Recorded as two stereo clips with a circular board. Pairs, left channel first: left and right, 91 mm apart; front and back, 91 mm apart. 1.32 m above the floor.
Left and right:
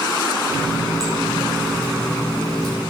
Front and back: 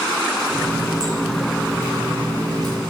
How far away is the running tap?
About 4 m.